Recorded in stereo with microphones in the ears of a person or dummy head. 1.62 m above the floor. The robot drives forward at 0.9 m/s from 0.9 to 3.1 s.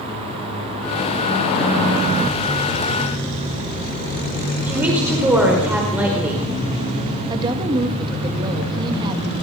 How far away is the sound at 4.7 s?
About 4.5 m.